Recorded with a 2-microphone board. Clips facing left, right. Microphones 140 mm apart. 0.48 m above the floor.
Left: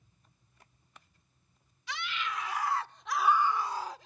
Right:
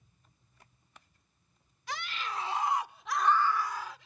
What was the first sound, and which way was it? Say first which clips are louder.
A scream: even; 50° right (ahead or behind).